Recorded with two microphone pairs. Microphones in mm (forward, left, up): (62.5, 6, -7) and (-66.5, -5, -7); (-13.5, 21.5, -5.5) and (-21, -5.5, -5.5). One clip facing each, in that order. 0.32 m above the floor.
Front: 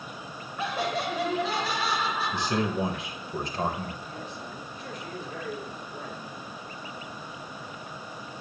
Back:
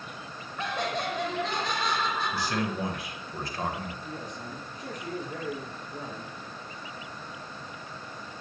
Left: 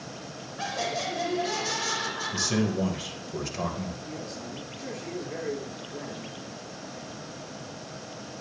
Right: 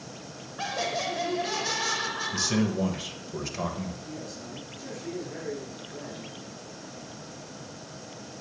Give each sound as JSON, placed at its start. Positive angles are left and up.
{"t": 0.6, "sound": "laughter", "azimuth_deg": -70, "distance_m": 1.2}
{"t": 2.3, "sound": "a man speaking", "azimuth_deg": -20, "distance_m": 1.3}
{"t": 4.0, "sound": "a man speaking", "azimuth_deg": 135, "distance_m": 5.0}